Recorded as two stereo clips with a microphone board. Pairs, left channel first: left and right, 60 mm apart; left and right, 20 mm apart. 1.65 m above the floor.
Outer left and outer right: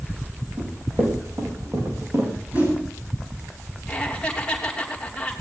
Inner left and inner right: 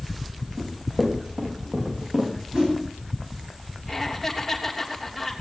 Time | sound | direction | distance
0.6 | running footsteps | 40° right (ahead or behind) | 5.5 m
2.5 | a whoosh | 35° right (ahead or behind) | 10 m
3.9 | laughter | 15° left (ahead or behind) | 3 m